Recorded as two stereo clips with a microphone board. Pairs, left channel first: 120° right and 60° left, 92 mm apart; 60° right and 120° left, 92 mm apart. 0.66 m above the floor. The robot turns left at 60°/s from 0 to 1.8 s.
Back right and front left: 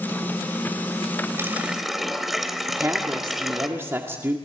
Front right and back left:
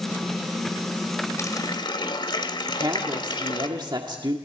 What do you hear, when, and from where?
1.4 s a running tap: 5° right, 1.7 m; by 3.7 s 30° right, 1.7 m
2.7 s a woman speaking: 115° left, 1.8 m